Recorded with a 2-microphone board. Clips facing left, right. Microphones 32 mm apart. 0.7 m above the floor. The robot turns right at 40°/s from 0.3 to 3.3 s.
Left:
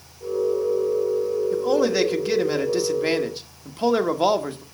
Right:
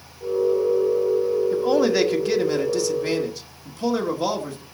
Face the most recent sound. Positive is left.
turn(degrees=40)